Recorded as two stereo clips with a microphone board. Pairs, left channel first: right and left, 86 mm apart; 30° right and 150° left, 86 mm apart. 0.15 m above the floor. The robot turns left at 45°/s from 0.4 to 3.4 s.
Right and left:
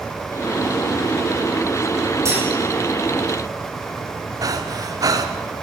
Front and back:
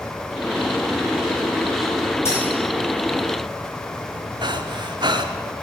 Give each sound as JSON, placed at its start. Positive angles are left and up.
{"t": 2.2, "sound": "cutlery clinking", "azimuth_deg": 30, "distance_m": 7.5}
{"t": 4.4, "sound": "breathing", "azimuth_deg": 130, "distance_m": 1.9}